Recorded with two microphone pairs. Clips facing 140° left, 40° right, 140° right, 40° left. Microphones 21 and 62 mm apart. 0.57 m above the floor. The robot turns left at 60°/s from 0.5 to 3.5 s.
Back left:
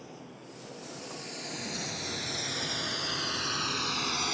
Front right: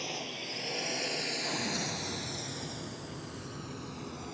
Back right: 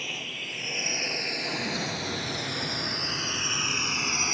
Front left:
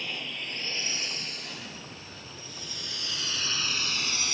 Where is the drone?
55° right; by 4.3 s 155° left.